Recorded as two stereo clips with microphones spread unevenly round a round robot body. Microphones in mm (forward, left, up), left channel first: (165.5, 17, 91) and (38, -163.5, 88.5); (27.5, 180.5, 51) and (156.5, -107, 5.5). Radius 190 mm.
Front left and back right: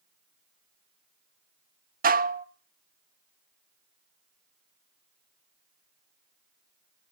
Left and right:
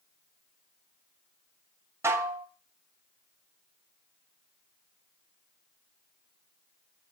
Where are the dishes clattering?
130° right, 0.6 m.